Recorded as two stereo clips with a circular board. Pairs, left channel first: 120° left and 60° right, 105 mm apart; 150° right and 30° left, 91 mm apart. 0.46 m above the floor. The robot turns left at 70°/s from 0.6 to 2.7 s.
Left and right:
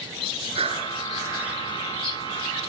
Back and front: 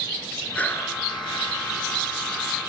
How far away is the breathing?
About 3.5 m.